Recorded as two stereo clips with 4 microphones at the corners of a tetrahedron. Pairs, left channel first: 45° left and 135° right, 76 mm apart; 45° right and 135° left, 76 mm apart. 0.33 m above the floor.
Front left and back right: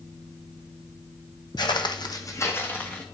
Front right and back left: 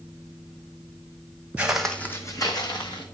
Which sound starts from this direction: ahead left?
Footsteps, at 1.6 s.